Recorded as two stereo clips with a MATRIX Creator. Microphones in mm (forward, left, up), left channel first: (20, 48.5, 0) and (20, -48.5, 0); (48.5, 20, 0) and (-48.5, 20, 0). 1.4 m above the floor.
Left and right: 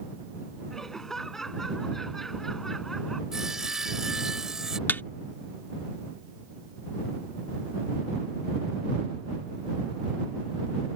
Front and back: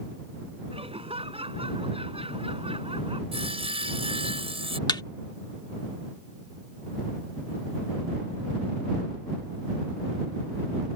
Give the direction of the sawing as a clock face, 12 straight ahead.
6 o'clock.